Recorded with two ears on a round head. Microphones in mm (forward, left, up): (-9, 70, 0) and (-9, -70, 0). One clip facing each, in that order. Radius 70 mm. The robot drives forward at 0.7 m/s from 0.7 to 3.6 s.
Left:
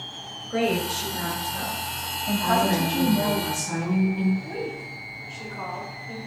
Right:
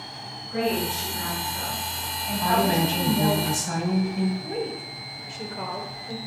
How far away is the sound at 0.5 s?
About 2 m.